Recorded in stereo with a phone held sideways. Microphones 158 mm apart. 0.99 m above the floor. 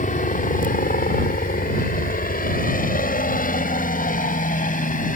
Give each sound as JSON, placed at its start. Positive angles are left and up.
{"t": 0.0, "sound": "a helicopter", "side_deg": 60}